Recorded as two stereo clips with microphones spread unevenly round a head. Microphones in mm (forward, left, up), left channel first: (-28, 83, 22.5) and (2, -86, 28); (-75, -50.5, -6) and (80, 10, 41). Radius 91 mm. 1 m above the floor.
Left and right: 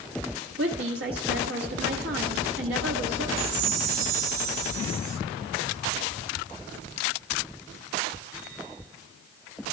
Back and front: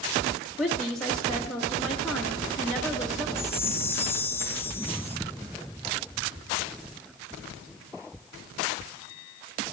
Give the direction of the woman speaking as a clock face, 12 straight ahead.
2 o'clock.